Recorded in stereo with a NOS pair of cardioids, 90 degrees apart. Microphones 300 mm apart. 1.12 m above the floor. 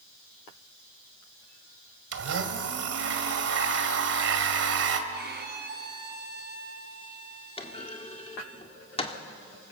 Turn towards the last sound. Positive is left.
turn(degrees=20)